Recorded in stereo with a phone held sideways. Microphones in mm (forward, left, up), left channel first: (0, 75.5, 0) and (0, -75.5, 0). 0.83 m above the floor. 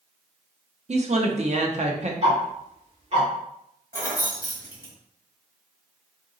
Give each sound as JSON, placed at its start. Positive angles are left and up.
{"t": 0.9, "sound": "a woman speaking", "side_deg": -50, "distance_m": 0.7}
{"t": 2.2, "sound": "ticking", "side_deg": -45, "distance_m": 1.7}
{"t": 3.9, "sound": "keys jangling", "side_deg": -70, "distance_m": 1.3}